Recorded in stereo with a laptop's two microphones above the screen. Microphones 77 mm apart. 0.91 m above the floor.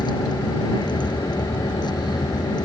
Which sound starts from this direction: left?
A vehicle, at 0.0 s.